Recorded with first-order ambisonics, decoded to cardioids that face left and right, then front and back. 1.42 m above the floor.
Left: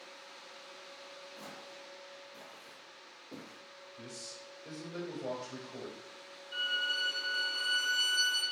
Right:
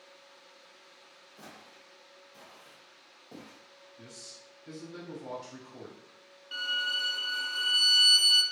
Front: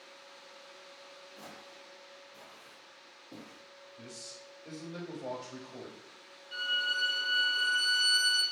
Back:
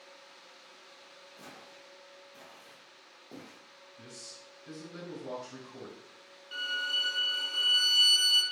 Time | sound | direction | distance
1.4 | footsteps | 40° left | 1.7 m
4.0 | a man speaking | 45° left | 1.6 m
6.5 | a violin | 110° right | 0.7 m